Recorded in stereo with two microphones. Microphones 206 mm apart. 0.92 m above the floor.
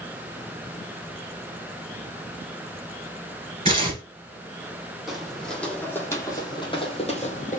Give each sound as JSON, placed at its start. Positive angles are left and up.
{"t": 3.6, "sound": "tearing paper", "side_deg": -25, "distance_m": 2.5}
{"t": 5.1, "sound": "footsteps", "side_deg": 0, "distance_m": 1.8}